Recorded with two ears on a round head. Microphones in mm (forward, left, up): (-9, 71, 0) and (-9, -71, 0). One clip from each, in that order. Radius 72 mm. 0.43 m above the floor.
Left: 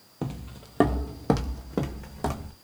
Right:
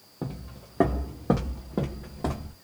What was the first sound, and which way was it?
Footsteps, 50° left (ahead or behind).